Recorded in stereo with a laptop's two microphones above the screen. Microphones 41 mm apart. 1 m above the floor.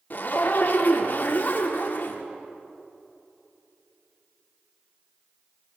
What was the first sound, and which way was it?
A zipper, 50° left (ahead or behind).